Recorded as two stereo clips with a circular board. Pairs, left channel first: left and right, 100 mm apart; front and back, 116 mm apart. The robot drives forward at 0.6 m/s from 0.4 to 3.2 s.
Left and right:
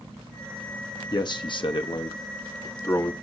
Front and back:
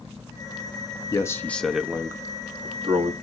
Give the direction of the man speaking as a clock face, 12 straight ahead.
10 o'clock.